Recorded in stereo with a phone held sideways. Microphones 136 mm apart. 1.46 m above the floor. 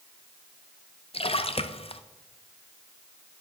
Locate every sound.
1.1 s a splash: 45° left (ahead or behind), 0.7 m